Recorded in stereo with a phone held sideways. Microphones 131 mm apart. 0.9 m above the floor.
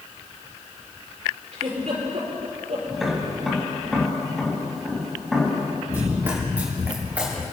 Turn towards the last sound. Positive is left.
turn(degrees=-10)  # may be behind; listen again after turning